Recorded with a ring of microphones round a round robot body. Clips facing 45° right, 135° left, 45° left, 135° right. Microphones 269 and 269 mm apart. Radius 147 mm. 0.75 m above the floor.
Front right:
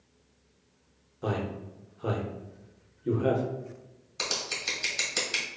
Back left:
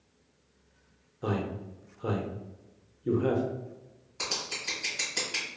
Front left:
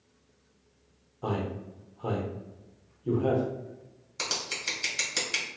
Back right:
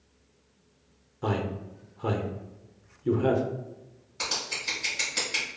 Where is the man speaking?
135° right, 0.6 m.